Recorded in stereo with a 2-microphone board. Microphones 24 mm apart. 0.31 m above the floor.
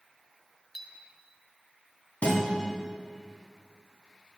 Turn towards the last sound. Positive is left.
turn(degrees=55)  # may be behind; listen again after turning